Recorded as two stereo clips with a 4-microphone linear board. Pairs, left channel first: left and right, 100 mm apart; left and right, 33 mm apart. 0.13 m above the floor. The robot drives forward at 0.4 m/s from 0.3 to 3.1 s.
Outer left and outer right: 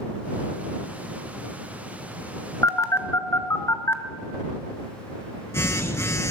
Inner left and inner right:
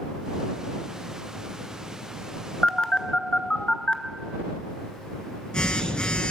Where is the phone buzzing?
30° left (ahead or behind), 0.6 m; by 6.3 s 25° left (ahead or behind), 0.7 m.